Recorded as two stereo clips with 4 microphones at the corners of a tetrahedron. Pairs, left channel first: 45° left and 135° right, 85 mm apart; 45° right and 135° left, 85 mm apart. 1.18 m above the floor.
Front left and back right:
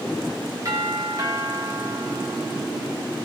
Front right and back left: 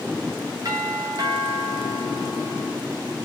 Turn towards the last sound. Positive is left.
turn(degrees=180)